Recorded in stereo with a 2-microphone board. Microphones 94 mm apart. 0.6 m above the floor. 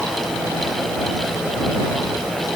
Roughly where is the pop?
I don't hear a pop.